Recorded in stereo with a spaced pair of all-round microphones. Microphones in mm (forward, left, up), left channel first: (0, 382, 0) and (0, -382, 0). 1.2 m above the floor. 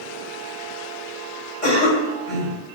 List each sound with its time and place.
1.6 s a cough: 85° left, 6.5 m